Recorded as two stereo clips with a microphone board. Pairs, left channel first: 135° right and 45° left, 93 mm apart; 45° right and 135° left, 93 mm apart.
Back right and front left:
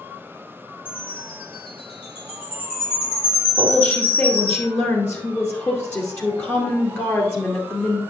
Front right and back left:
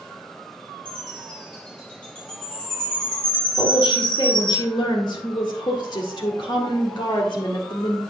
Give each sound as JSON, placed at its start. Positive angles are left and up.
{"t": 0.8, "sound": "a chime", "azimuth_deg": -125, "distance_m": 4.5}
{"t": 3.6, "sound": "a woman speaking", "azimuth_deg": -75, "distance_m": 2.0}